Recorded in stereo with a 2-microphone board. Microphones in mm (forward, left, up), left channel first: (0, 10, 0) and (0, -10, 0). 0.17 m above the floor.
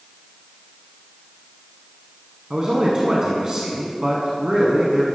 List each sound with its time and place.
2.5 s a man speaking: 35° right (ahead or behind), 1.3 m